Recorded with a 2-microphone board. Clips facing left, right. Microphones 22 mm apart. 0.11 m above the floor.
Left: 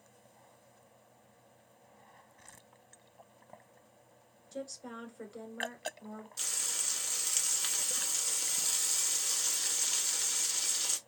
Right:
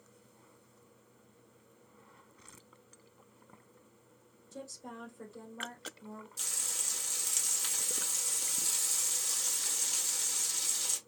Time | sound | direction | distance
4.5 | a woman speaking | 25° left (ahead or behind) | 1.2 m
6.4 | frying | 20° left (ahead or behind) | 0.8 m